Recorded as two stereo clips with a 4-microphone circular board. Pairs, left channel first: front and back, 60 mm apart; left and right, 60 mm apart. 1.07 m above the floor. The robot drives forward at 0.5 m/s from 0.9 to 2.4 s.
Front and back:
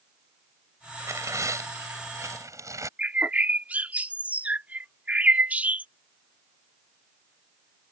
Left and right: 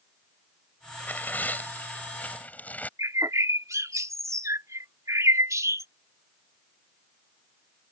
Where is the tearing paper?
150° left; by 2.9 s 155° left.